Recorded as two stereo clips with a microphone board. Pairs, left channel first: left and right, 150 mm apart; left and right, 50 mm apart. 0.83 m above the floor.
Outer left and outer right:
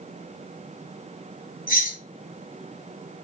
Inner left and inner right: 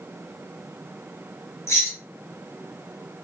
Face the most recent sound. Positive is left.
turn(degrees=60)  # may be behind; listen again after turning